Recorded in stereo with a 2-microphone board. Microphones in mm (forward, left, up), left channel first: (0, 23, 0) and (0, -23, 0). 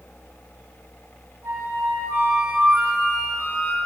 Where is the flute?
60° right (ahead or behind), 1.3 m.